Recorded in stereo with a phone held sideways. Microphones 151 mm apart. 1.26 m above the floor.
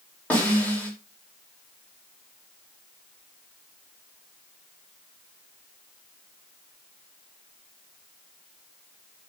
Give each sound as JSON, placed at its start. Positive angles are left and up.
{"t": 0.3, "sound": "a snare drum", "side_deg": 10, "distance_m": 4.0}